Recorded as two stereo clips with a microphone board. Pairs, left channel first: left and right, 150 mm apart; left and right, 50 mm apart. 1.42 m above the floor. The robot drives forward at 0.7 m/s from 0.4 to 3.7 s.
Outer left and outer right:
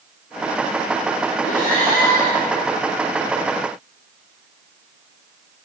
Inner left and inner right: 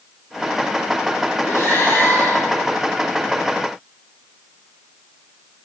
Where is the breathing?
65° left (ahead or behind), 3.5 m; by 2.9 s 80° left, 3 m.